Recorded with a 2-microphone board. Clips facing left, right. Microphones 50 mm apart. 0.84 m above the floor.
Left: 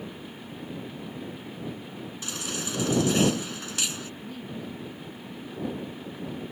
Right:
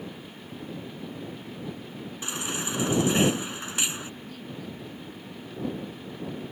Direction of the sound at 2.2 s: 25° right (ahead or behind).